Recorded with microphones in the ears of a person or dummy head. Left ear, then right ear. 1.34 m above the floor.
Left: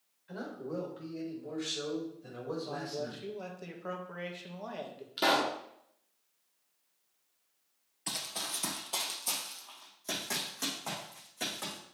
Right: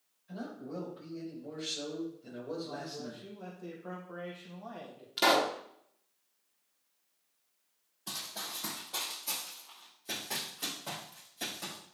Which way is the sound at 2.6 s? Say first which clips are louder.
Left 4 dB; 85° left.